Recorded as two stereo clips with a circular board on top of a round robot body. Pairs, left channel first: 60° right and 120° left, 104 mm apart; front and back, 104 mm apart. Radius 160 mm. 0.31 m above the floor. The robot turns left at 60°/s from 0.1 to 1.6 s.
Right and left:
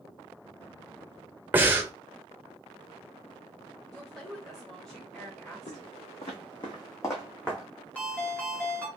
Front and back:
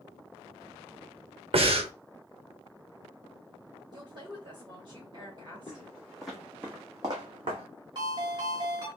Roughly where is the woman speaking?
Behind right.